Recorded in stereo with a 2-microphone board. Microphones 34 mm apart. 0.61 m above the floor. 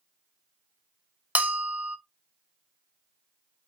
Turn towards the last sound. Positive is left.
turn(degrees=-45)  # may be behind; listen again after turning